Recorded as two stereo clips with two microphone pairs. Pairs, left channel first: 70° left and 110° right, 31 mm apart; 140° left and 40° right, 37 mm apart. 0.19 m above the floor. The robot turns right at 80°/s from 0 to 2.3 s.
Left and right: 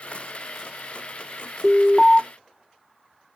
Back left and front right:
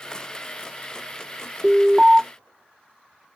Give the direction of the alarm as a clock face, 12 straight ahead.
1 o'clock.